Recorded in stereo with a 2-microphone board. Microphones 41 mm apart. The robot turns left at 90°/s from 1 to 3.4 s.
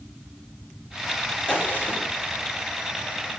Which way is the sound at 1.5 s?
140° left.